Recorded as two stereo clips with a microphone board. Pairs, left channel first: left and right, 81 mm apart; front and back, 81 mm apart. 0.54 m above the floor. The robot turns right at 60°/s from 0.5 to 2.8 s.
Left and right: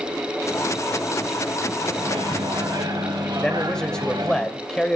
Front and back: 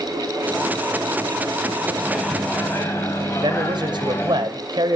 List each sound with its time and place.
2.0 s a microwave: 110° right, 3.5 m; by 4.4 s 60° right, 3.5 m
3.4 s a man speaking: 170° left, 2.5 m